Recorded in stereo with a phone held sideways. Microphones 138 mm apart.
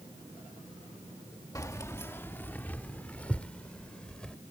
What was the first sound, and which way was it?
Keys jangling, 25° left (ahead or behind).